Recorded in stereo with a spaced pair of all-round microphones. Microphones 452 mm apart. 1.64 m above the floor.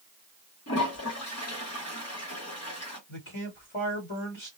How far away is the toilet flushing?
About 1.1 m.